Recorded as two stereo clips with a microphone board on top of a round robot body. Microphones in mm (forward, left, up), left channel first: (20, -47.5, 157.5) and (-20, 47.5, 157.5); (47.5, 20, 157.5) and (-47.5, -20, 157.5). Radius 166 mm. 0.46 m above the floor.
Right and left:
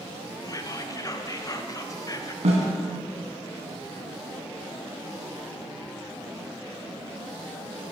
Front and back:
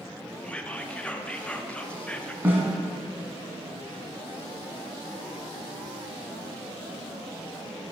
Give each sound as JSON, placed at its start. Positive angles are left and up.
{"t": 0.4, "sound": "whispering", "azimuth_deg": -50, "distance_m": 1.0}
{"t": 2.4, "sound": "a snare drum", "azimuth_deg": 130, "distance_m": 1.7}